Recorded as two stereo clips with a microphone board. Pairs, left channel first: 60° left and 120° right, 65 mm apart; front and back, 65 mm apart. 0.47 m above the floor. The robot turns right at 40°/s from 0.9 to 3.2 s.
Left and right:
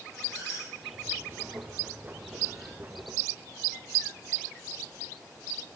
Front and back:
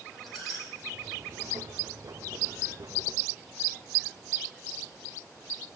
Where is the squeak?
90° left, 6 m.